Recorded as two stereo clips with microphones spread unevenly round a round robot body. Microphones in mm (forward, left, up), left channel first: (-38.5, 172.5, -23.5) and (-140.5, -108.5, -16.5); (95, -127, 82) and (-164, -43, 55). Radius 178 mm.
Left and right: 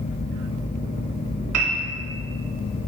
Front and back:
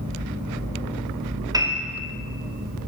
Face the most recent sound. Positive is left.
turn(degrees=-130)